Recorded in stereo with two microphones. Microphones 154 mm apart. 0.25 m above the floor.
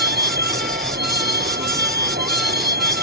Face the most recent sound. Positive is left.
turn(degrees=-85)